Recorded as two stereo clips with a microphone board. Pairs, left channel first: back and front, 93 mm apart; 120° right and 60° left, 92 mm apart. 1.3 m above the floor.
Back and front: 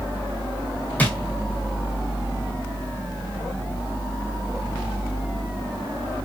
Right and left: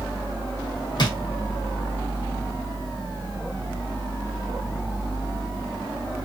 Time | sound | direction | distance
1.0 | a drawer | 110° right | 1.5 m